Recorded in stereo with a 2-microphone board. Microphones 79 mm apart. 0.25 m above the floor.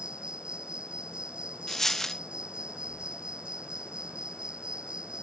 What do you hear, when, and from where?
0.0 s an insect: 10° right (ahead or behind)
1.7 s a dropped coin: 5° left (ahead or behind)